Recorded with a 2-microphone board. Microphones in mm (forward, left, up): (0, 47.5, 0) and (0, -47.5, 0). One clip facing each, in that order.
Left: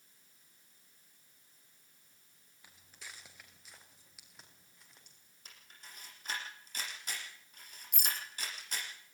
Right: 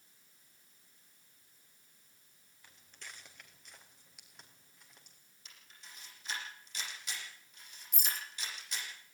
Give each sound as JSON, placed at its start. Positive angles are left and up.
{"t": 2.6, "sound": "footsteps", "side_deg": 10, "distance_m": 4.5}
{"t": 5.5, "sound": "a camera shutter", "side_deg": 45, "distance_m": 10.0}
{"t": 7.9, "sound": "a rattle", "side_deg": 65, "distance_m": 3.0}